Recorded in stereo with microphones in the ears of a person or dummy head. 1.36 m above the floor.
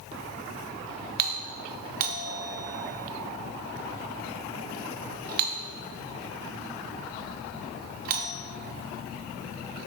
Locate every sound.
1.2 s a doorbell: 50° right (ahead or behind), 0.9 m